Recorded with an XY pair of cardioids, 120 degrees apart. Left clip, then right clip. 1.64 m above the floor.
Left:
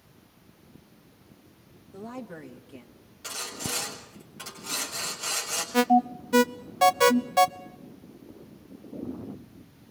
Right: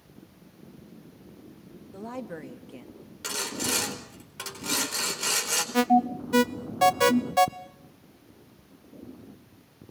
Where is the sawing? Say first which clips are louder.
Right 4 dB; 45° right, 4.5 m.